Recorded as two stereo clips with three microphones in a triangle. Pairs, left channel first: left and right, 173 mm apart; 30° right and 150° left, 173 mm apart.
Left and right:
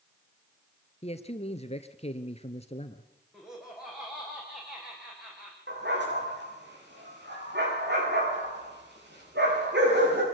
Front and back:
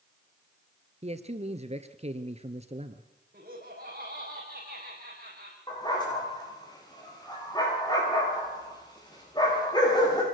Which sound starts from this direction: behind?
Laughter, at 3.3 s.